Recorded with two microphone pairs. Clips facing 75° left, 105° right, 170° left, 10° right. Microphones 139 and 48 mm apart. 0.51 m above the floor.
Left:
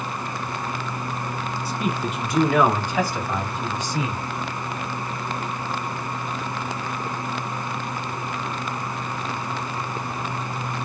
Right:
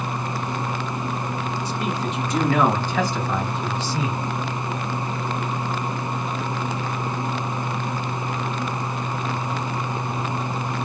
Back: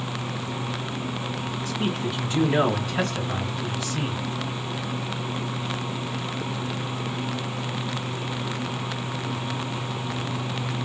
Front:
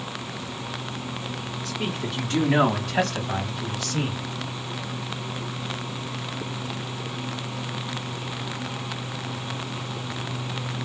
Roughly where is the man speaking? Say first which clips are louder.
Left 3 dB, back 2 dB; ahead.